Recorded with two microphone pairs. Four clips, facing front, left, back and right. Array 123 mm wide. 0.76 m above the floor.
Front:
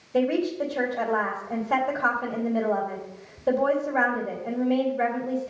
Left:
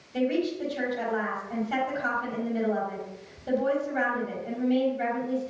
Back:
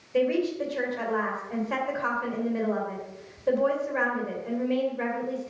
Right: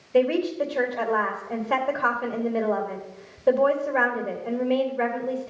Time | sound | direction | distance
0.1 | a woman speaking | 70° right | 2.5 m